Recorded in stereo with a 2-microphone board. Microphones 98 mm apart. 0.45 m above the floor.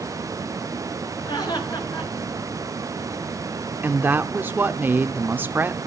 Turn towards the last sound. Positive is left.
turn(degrees=-20)  # may be behind; listen again after turning